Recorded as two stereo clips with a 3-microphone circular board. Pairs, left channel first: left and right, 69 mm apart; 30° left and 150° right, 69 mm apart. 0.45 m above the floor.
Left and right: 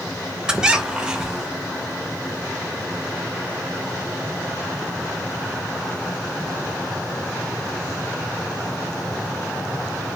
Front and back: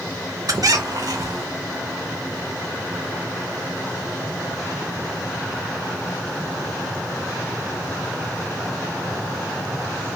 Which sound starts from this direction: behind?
A squeak, at 0.5 s.